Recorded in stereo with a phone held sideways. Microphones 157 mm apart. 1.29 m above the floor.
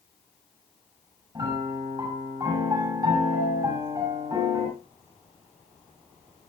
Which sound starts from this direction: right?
A piano, at 1.4 s.